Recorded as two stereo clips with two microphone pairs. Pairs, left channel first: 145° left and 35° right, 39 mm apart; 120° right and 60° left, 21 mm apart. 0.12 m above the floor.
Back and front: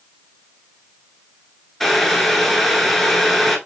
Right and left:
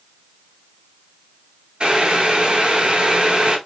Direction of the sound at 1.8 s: 65° left.